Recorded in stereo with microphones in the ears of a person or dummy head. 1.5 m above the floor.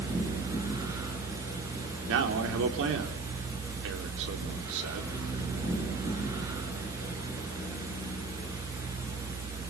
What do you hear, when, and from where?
0.0 s a fan: 25° right (ahead or behind), 7 m
2.1 s a man speaking: 65° right (ahead or behind), 3.5 m